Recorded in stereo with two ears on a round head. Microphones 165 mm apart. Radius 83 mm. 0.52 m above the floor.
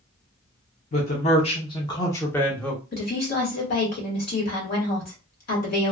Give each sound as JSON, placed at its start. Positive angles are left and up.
{"t": 0.9, "sound": "a man speaking", "side_deg": 40, "distance_m": 0.9}
{"t": 2.9, "sound": "a woman speaking", "side_deg": 55, "distance_m": 1.4}